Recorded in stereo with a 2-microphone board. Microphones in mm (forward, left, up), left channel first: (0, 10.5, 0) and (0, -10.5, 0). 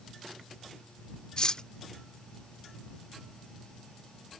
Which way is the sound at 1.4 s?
40° left (ahead or behind).